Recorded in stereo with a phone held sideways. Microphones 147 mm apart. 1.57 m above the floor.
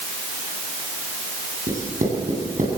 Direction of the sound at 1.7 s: 60° right (ahead or behind).